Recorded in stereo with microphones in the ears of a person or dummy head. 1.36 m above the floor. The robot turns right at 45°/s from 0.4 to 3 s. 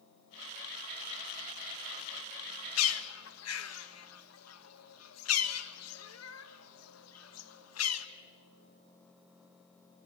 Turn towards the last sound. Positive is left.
turn(degrees=85)